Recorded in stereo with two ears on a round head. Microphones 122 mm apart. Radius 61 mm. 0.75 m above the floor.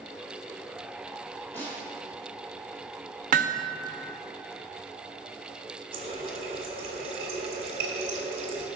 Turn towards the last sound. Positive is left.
turn(degrees=-45)  # may be behind; listen again after turning